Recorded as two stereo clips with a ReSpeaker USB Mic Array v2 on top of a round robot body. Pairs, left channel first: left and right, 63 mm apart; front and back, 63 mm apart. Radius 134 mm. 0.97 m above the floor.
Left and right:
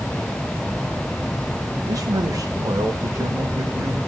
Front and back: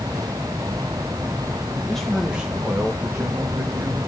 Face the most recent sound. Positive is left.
turn(degrees=-135)